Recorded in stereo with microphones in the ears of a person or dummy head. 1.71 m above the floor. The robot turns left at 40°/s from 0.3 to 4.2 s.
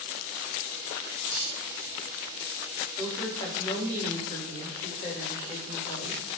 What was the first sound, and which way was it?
A dropped coin, 15° left (ahead or behind).